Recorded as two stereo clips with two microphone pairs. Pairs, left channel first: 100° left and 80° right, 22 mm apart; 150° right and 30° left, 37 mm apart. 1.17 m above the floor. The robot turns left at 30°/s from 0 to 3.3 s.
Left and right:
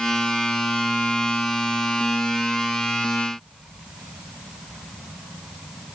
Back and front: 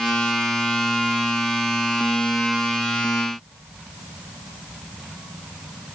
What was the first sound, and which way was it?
Only background noise.